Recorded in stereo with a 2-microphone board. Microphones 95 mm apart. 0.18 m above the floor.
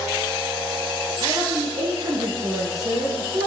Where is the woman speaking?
60° right (ahead or behind), 3 m; by 3.5 s 30° right (ahead or behind), 2.0 m.